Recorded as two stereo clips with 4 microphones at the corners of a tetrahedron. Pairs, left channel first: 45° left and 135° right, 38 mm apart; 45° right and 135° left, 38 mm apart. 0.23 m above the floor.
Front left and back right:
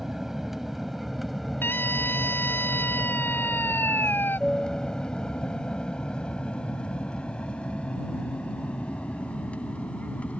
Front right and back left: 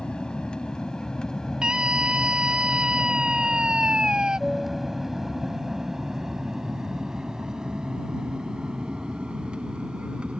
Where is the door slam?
I don't hear a door slam.